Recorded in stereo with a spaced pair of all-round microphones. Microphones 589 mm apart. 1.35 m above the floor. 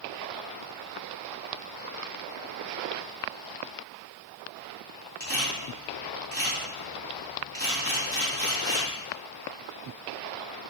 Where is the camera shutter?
15° right (ahead or behind), 3 m.